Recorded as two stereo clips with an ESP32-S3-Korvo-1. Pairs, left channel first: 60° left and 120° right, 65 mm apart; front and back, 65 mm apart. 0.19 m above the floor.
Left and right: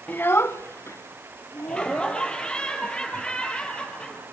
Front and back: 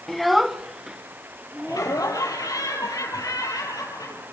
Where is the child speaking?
80° left, 0.6 m; by 2.0 s 100° left, 2.5 m.